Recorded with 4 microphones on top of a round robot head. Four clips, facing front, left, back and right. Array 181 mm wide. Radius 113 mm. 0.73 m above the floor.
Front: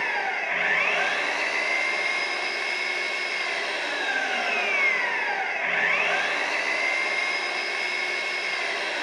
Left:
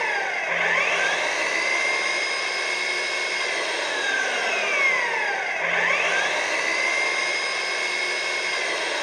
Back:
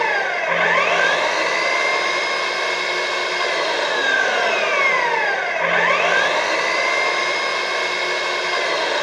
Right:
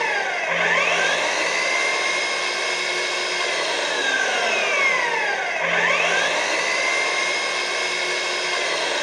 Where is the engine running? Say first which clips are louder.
Right 3 dB, back 8 dB; 170° right, 2 m.